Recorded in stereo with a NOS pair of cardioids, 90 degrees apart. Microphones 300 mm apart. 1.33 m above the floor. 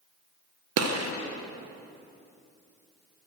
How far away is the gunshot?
About 0.9 m.